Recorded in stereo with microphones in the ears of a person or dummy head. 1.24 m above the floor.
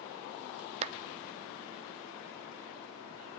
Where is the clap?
35° right (ahead or behind), 0.7 m.